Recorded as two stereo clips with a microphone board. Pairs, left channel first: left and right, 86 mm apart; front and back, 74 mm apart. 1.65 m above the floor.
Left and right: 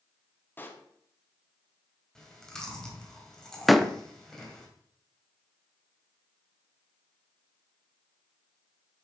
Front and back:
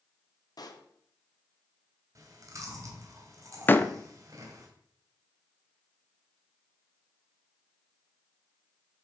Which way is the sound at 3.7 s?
Straight ahead.